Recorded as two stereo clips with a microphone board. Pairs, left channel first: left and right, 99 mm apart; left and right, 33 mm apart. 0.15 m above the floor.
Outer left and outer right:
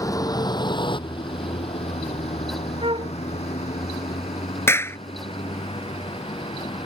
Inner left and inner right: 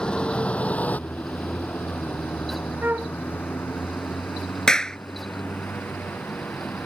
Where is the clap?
25° left (ahead or behind).